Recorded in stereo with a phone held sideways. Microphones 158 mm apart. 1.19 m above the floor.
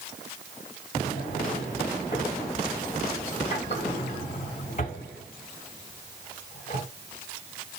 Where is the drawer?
50° left (ahead or behind), 1.4 m.